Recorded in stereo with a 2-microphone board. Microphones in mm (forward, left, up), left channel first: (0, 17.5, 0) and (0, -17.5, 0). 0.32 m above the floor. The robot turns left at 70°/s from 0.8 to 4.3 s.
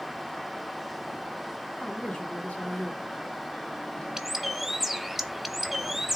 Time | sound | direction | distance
1.8 | a woman speaking | 5° right (ahead or behind) | 3 m
4.2 | a bird | 15° right (ahead or behind) | 0.6 m